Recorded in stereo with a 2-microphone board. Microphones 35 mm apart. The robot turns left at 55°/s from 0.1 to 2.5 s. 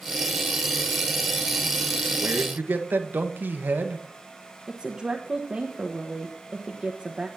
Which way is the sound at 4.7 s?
20° right (ahead or behind).